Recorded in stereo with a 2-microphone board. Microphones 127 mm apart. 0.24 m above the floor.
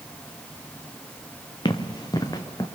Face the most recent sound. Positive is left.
turn(degrees=30)  # may be behind; listen again after turning